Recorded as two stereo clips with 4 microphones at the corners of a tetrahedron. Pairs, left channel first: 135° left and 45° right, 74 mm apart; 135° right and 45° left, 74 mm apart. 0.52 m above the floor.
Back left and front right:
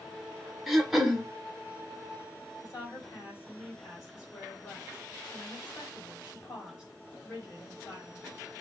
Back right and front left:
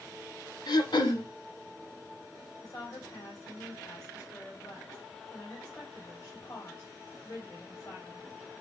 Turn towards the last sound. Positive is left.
turn(degrees=-170)